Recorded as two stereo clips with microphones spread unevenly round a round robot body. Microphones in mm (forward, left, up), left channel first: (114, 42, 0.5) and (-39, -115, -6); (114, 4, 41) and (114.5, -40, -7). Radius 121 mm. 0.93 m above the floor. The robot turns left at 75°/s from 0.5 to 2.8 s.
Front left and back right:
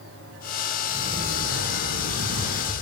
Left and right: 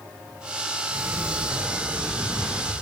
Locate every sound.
0.9 s a sliding door: 55° right, 9.5 m; by 2.7 s 170° left, 9.5 m